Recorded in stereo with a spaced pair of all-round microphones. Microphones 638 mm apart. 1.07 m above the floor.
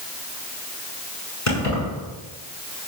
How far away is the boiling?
No boiling in this recording.